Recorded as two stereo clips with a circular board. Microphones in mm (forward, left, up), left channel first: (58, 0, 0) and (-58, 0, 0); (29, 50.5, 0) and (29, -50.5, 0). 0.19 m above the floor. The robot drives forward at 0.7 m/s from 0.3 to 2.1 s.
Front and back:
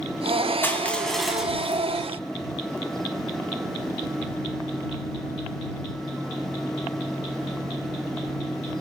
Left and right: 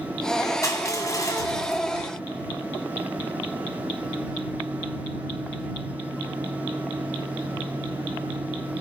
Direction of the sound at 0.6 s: 60° left.